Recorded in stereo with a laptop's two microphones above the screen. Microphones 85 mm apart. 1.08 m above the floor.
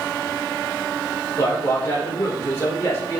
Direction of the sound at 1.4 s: 30° left (ahead or behind).